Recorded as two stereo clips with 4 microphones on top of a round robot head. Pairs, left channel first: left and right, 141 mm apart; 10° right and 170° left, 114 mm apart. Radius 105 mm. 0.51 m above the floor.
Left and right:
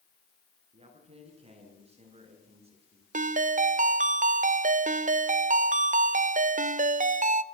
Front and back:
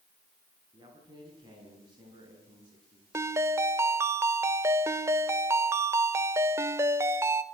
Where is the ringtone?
120° right, 1.0 m.